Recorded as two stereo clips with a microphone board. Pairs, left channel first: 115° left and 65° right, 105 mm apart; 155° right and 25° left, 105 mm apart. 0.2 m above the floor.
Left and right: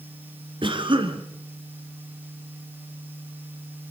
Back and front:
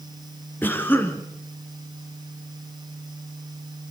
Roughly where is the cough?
Right.